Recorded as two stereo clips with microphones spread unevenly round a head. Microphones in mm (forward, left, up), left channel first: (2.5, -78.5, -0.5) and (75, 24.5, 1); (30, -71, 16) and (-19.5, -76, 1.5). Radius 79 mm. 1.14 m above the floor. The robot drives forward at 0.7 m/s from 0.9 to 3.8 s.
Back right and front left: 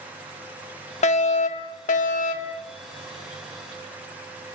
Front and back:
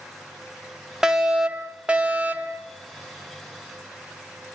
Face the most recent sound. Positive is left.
turn(degrees=-140)